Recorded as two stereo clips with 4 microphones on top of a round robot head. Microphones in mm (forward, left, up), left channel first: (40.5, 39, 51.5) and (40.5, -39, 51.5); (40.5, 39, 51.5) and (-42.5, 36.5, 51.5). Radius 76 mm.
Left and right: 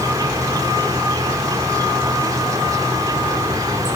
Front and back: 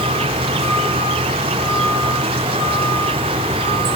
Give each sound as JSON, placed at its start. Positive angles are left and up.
{"t": 0.0, "sound": "an insect", "azimuth_deg": -150, "distance_m": 0.9}